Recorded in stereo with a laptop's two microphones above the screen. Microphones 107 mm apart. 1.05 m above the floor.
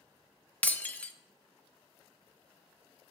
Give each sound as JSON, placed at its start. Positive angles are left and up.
{"t": 0.6, "sound": "breaking glass", "side_deg": 15, "distance_m": 0.7}